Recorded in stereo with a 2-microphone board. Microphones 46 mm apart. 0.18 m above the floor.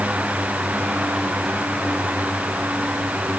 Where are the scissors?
I don't hear scissors.